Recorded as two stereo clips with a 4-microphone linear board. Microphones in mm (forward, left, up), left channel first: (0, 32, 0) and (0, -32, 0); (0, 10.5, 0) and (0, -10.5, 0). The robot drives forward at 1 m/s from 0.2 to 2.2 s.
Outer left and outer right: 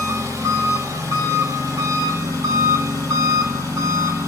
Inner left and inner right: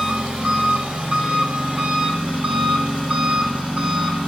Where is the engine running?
75° right (ahead or behind), 4 m; by 4.3 s 60° right (ahead or behind), 4.5 m.